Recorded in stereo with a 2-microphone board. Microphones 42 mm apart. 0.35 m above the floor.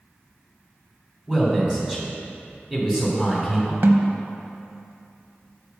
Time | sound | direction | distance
1.3 | a man speaking | 15° right (ahead or behind) | 2.5 m
3.8 | a snare drum | 60° right (ahead or behind) | 0.7 m